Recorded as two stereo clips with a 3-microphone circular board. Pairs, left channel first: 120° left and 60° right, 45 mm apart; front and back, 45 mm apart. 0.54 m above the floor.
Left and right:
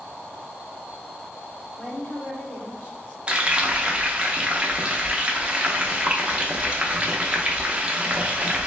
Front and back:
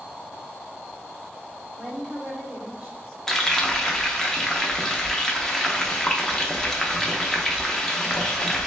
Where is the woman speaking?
140° left, 1.7 m; by 3.2 s 115° left, 1.1 m.